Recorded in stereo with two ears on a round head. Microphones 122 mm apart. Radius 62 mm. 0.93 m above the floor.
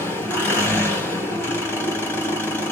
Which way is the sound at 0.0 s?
15° left (ahead or behind).